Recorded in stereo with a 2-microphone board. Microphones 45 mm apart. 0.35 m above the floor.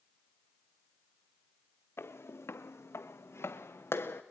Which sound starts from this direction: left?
Footsteps, at 2.0 s.